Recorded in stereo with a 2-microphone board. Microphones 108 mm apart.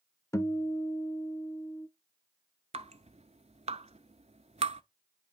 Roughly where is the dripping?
Right.